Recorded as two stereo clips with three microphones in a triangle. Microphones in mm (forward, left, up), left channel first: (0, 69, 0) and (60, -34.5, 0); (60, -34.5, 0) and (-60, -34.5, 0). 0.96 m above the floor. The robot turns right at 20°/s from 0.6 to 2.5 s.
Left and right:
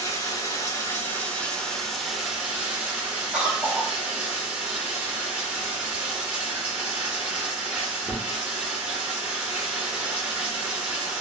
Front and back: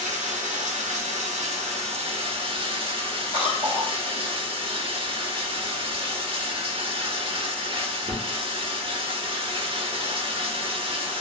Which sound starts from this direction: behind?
Running water, at 0.0 s.